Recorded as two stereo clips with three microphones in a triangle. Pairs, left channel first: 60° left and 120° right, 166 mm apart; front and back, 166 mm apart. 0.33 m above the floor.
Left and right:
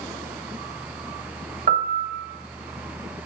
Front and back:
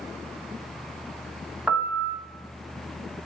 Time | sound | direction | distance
1.7 | a piano | 95° right | 0.8 m